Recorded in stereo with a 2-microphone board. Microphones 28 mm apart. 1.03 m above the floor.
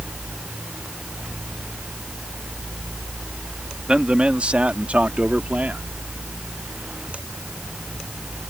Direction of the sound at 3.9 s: 40° right (ahead or behind).